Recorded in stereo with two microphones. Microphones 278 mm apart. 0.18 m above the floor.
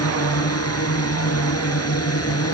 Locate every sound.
0.0 s a drone: 60° left (ahead or behind)